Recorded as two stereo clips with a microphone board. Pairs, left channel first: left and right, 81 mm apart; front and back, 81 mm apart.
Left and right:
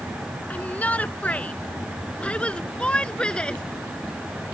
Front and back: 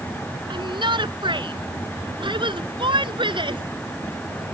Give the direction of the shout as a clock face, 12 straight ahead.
7 o'clock.